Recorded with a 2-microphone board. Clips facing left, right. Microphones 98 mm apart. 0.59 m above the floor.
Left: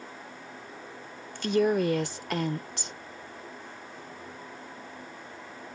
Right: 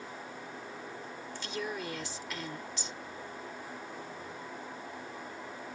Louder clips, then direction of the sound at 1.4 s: Left 15 dB; 60° left (ahead or behind).